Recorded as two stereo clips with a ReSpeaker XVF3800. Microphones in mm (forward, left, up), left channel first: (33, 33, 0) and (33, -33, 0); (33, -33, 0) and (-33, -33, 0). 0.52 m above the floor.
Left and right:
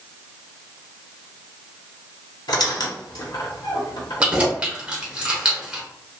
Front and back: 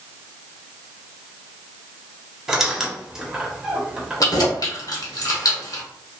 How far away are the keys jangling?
About 0.9 m.